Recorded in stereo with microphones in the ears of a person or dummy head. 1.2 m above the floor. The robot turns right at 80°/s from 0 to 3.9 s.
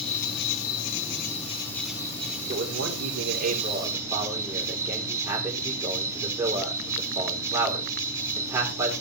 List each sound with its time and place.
0.0 s an insect: 30° left, 4.5 m; by 9.0 s 15° right, 4.5 m
2.5 s a man speaking: 135° right, 3.5 m; by 8.9 s 20° right, 3.5 m